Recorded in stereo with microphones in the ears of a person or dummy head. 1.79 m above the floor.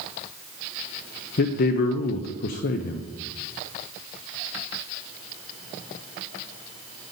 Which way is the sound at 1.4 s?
40° left (ahead or behind).